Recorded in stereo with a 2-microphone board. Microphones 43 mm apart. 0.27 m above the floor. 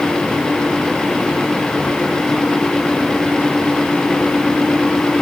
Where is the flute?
No flute in this recording.